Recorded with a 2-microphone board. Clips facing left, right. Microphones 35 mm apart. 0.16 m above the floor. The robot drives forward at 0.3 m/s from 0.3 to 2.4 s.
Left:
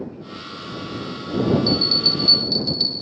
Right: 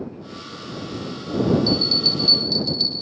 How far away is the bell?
About 9 m.